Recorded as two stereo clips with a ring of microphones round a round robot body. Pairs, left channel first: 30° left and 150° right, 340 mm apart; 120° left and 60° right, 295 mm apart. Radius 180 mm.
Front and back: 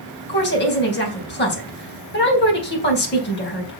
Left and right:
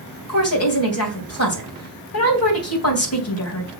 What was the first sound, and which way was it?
A woman speaking, 90° left.